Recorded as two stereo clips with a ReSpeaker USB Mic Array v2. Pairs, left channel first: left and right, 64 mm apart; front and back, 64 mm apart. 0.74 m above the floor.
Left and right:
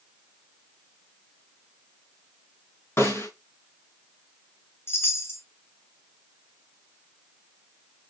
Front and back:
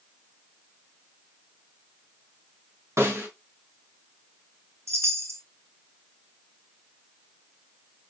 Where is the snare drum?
135° left, 4 m.